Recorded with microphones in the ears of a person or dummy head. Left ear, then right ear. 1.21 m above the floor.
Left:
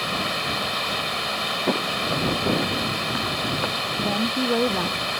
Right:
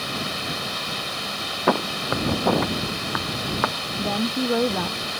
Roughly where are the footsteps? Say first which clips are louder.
Right 5 dB; right.